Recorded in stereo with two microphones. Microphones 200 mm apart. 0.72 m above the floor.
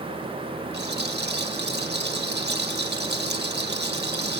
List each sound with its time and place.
0.7 s a rattle: 55° right (ahead or behind), 2.0 m